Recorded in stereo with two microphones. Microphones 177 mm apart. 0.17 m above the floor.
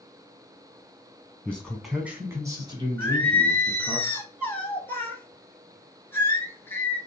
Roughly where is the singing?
Centre.